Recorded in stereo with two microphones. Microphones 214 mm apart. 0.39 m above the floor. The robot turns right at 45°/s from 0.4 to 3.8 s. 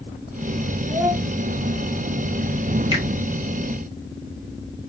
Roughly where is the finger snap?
Right.